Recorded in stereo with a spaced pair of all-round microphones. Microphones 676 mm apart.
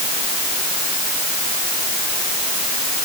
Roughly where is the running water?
No running water in this recording.